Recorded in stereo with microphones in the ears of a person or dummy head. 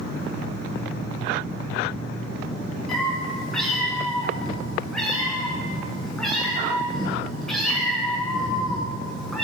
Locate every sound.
2.9 s a cat meowing: 5° right (ahead or behind), 3.5 m